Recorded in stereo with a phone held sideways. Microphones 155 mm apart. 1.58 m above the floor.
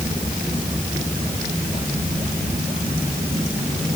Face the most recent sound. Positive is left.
No sound to turn to.